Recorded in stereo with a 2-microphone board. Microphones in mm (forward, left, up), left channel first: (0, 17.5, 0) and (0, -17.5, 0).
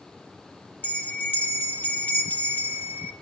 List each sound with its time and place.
0.8 s a bell: 70° left (ahead or behind), 1.0 m